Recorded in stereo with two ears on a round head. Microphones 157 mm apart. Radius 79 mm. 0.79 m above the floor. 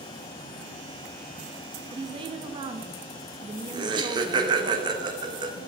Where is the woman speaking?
30° right (ahead or behind), 0.5 m.